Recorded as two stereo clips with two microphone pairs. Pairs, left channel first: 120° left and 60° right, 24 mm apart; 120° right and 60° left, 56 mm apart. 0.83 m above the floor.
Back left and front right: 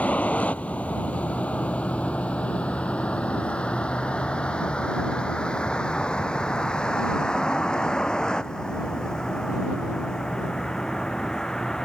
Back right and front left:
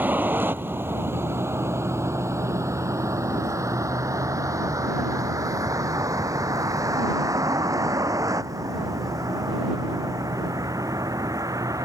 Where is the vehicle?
120° left; by 11.9 s 60° left.